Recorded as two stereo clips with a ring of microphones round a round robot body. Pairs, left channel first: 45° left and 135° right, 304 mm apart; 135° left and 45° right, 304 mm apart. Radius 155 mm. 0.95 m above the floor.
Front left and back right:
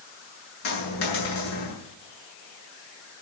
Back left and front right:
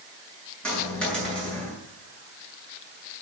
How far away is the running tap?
I don't hear a running tap.